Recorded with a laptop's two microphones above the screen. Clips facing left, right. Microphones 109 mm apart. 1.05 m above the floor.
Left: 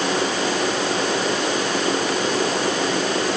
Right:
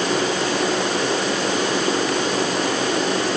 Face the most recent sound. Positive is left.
No sound to turn to.